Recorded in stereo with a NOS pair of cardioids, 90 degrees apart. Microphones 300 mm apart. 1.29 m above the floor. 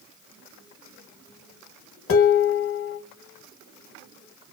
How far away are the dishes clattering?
About 0.9 m.